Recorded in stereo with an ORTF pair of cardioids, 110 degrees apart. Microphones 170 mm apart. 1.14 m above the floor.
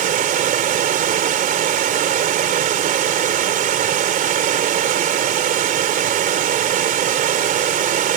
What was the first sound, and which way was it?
Running water, 55° right.